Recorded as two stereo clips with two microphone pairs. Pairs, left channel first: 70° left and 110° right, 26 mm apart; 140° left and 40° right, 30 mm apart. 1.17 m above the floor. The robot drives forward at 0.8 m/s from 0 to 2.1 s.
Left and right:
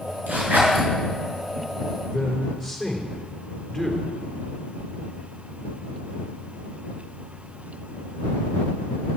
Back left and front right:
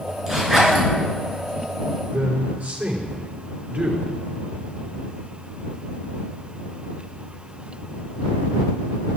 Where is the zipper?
115° right, 6 m; by 0.8 s 120° right, 6 m.